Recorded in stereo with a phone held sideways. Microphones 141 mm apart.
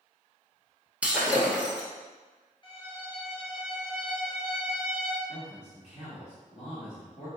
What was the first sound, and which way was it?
Breaking glass, 10° right (ahead or behind).